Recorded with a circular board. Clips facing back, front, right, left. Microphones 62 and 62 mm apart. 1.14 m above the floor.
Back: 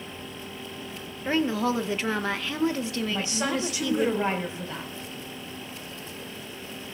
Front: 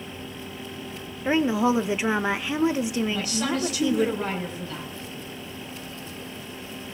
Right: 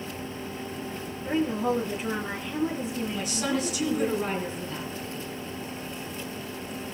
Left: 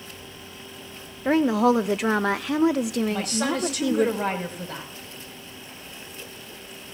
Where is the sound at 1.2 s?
75° left, 0.6 m.